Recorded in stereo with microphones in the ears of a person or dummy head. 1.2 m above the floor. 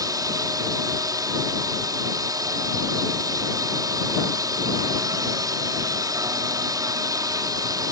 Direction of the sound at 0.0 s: 20° right (ahead or behind).